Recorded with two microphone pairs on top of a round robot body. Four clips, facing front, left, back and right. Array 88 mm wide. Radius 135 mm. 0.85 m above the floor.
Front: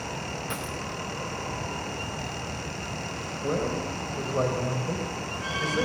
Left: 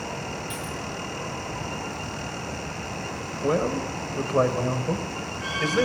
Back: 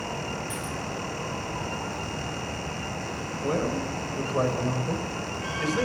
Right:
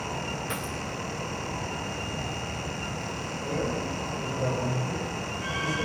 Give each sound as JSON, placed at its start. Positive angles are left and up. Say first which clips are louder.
{"t": 0.5, "sound": "a dropped coin", "louder": "even, even", "azimuth_deg": -50, "distance_m": 4.0}
{"t": 3.4, "sound": "a man speaking", "louder": "left 7 dB, back 1 dB", "azimuth_deg": 95, "distance_m": 4.5}